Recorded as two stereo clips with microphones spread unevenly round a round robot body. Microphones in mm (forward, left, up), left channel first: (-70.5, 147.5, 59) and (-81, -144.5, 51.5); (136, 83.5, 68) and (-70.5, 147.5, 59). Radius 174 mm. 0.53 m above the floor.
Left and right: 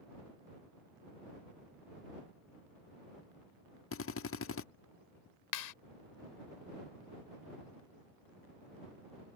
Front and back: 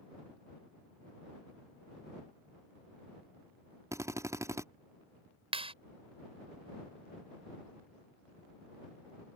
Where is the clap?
100° left.